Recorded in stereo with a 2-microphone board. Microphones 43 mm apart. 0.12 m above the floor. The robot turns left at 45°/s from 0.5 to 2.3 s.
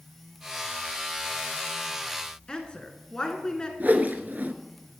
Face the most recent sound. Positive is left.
turn(degrees=-45)  # may be behind; listen again after turning